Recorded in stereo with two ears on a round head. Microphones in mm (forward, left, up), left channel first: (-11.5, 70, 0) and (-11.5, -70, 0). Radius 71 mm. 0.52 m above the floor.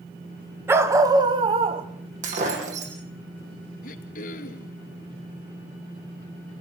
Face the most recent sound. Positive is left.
turn(degrees=60)  # may be behind; listen again after turning